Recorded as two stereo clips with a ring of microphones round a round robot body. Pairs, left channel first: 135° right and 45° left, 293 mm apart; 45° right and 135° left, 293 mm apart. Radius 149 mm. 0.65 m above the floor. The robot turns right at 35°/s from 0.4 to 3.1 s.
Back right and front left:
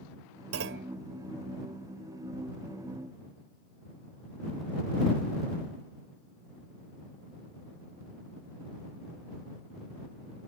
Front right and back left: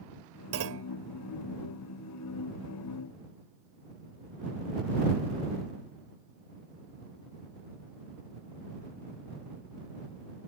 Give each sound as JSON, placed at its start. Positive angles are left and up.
{"t": 0.5, "sound": "a clunk", "azimuth_deg": 90}